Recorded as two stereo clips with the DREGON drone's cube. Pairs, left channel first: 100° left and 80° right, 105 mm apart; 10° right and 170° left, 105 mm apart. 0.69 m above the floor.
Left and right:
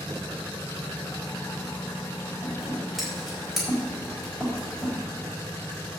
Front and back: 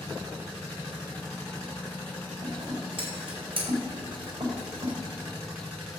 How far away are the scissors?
About 4 m.